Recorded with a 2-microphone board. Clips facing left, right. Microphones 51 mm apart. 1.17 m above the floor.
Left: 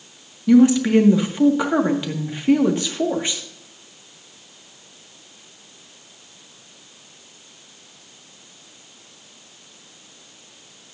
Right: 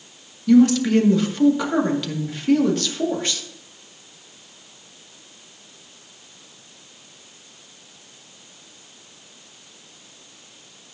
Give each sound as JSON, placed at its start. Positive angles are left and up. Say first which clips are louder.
{"t": 0.5, "sound": "a woman speaking", "louder": "left 1 dB", "side_deg": 20, "distance_m": 1.8}